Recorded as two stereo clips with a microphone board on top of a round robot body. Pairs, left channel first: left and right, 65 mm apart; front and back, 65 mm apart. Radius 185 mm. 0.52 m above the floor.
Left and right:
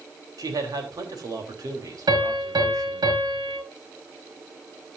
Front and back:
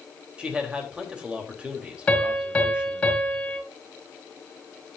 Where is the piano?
75° right, 5.5 m.